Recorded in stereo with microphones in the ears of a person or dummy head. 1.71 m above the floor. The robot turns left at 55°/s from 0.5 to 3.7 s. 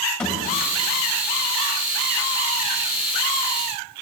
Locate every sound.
0.2 s a thud: 15° left (ahead or behind), 2 m